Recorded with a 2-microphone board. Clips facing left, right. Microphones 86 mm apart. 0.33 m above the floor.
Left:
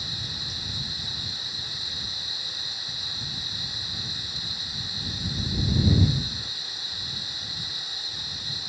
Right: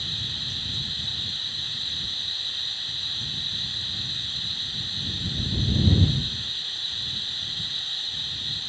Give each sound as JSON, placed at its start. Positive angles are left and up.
{"t": 0.0, "sound": "running water", "side_deg": 15}